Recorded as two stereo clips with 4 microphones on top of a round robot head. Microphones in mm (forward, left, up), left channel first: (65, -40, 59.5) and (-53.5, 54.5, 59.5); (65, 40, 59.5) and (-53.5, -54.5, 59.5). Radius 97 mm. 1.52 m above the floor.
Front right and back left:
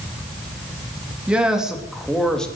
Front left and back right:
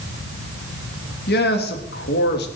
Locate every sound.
1.3 s a man speaking: 60° left, 3 m; by 2.5 s 45° left, 3.5 m